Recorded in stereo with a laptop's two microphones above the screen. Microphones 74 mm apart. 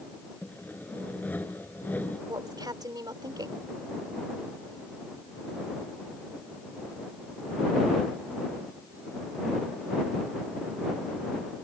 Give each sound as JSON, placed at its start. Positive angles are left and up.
{"t": 0.4, "sound": "sawing", "side_deg": 25}
{"t": 2.3, "sound": "a woman speaking", "side_deg": -65}